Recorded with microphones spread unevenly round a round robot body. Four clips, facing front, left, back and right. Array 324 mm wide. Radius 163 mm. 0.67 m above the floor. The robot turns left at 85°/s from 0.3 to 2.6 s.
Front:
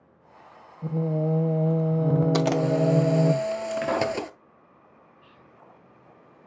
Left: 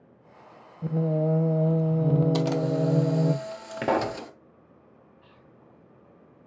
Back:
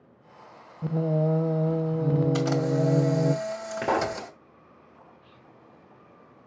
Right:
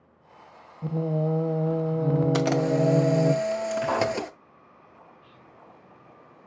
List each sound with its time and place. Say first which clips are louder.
0.8 s singing: left 1 dB, back 1 dB; 145° left, 0.7 m; by 3.3 s 5° right, 0.7 m
2.3 s a camera shutter: right 2 dB, front 2 dB; 25° right, 0.8 m; by 4.3 s 50° right, 0.8 m
3.8 s a pop: left 3 dB, back 1 dB; 105° left, 1.3 m
5.2 s whispering: right 2 dB, even; 45° left, 4 m